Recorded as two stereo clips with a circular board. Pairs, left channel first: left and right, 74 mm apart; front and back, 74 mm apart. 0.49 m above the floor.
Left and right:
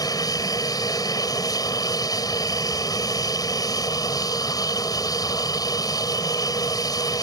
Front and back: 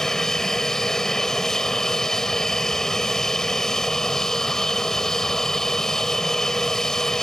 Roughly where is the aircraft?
Left.